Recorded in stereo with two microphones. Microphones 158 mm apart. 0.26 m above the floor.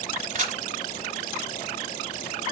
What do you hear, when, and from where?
0.3 s a camera shutter: 55° right (ahead or behind), 1.5 m